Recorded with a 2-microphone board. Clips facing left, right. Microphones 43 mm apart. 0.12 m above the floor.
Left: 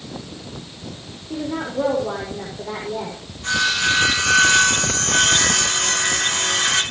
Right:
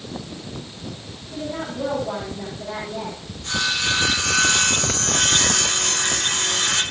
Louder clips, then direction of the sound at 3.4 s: Left 4 dB; 85° left.